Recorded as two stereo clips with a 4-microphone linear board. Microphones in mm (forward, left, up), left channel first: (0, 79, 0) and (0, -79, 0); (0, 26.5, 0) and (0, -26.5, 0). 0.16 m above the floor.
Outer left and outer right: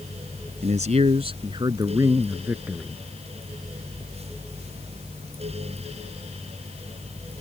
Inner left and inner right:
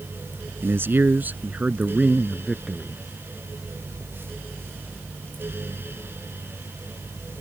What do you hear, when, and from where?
0.6 s a man speaking: 50° right (ahead or behind); by 3.0 s 5° right (ahead or behind)